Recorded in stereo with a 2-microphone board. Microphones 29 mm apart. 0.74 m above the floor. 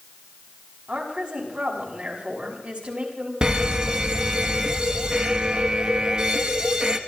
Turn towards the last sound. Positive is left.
turn(degrees=-25)  # may be behind; listen again after turning